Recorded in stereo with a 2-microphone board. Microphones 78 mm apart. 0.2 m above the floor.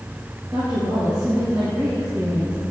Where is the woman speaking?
65° right (ahead or behind), 3.5 m; by 2.6 s 30° right (ahead or behind), 3.5 m.